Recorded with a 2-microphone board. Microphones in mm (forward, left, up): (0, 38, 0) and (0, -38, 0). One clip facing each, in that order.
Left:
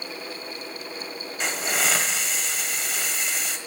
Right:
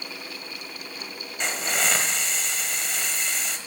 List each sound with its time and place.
1.4 s a hiss: 5° left (ahead or behind), 1.3 m